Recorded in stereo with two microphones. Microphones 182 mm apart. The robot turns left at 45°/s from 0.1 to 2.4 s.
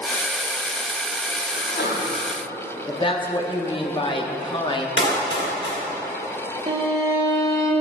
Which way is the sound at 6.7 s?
40° right (ahead or behind).